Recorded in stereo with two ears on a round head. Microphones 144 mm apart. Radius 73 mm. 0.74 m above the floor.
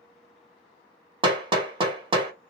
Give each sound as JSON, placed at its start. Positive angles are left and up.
{"t": 1.2, "sound": "hammering", "side_deg": -35, "distance_m": 1.2}